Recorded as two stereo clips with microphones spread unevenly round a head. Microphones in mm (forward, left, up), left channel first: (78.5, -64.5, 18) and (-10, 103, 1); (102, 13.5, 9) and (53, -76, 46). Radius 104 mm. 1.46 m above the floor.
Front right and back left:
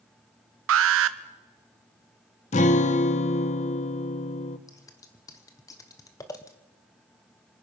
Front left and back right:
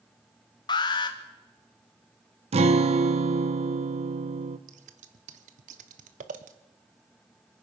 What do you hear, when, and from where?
0.7 s an alarm: 115° left, 0.8 m
2.5 s a guitar: 120° right, 0.8 m
4.7 s scissors: 140° right, 0.8 m